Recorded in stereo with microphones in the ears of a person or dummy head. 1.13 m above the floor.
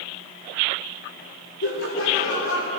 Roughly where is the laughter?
Left.